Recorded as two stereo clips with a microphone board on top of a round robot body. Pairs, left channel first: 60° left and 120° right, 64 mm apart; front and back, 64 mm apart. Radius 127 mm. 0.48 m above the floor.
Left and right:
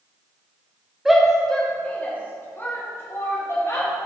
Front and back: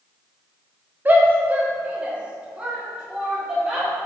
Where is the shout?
160° left, 0.9 m; by 3.9 s 100° left, 2 m.